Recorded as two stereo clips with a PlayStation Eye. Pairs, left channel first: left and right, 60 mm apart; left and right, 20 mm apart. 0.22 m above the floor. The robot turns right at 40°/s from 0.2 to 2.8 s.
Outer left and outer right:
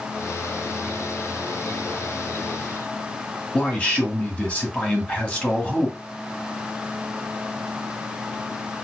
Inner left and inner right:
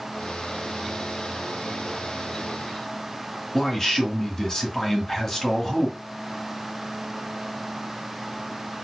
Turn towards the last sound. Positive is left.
turn(degrees=20)  # may be behind; listen again after turning